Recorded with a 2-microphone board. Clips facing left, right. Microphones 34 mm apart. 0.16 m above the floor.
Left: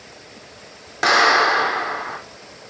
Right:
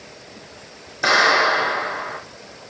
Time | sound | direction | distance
1.0 | a clap | 70° left (ahead or behind) | 6.5 m